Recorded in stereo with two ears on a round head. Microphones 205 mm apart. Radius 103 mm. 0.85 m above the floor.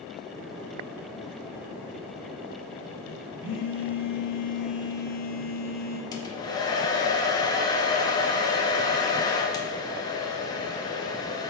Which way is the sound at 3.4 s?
25° left (ahead or behind).